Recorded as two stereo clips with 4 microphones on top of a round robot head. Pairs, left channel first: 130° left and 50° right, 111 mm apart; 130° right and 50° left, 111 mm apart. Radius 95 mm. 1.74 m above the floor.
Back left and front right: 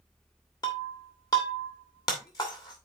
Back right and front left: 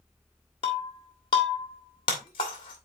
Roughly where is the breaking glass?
Behind.